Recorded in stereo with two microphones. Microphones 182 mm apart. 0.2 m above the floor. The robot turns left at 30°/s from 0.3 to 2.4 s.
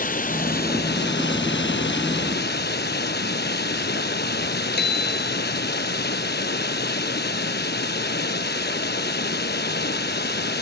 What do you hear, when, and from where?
0.0 s running water: 130° left, 0.9 m; by 10.6 s 65° left, 0.9 m
4.8 s a bicycle bell: 65° left (ahead or behind), 2.5 m